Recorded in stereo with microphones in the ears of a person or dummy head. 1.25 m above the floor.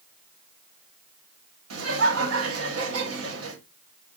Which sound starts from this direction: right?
Laughter, at 1.7 s.